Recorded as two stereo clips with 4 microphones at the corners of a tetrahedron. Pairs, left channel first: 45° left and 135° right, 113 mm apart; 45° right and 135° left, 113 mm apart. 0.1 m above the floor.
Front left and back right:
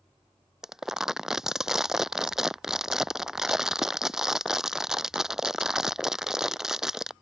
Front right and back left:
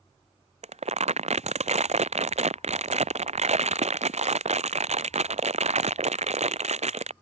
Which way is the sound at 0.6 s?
140° left.